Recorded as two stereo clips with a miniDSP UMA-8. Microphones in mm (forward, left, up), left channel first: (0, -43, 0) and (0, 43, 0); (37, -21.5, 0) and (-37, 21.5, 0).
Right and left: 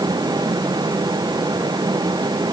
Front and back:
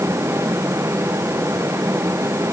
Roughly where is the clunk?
I don't hear a clunk.